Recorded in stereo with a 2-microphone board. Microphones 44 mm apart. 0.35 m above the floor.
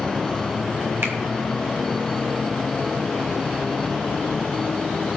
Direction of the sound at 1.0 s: 60° right (ahead or behind).